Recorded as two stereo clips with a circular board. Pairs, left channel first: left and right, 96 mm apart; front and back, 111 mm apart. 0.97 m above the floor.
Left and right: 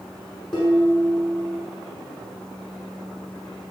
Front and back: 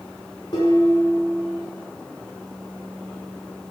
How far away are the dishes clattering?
About 6 m.